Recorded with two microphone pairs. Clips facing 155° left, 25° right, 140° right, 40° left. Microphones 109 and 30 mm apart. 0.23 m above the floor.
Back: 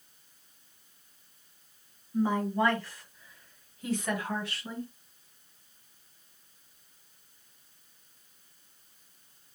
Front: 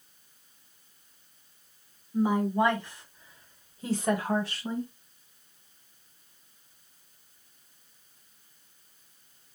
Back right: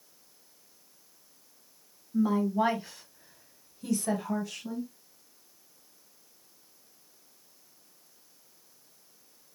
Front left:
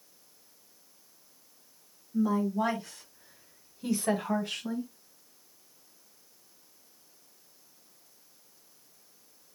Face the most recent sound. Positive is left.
turn(degrees=20)